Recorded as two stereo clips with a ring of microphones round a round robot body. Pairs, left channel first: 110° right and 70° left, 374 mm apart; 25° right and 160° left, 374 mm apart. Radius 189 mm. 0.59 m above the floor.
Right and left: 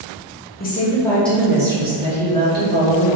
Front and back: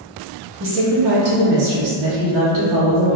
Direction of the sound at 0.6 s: 165° right.